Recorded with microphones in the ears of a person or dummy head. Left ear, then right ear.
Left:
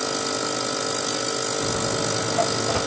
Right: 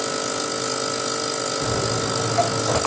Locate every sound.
1.6 s footsteps: 40° right (ahead or behind), 4.5 m; by 2.8 s 50° right (ahead or behind), 4 m